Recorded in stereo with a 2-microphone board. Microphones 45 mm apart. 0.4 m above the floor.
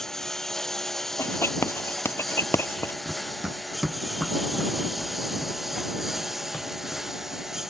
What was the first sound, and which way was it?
A lawn mower, 10° left (ahead or behind).